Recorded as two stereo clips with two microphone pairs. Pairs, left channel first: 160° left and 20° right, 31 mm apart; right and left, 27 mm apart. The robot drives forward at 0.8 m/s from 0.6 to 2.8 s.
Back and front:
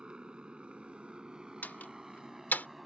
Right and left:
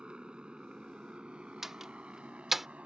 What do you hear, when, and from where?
0.0 s a motorcycle: 40° left; by 2.9 s 65° left
1.6 s a door slam: 160° left; by 2.7 s 165° left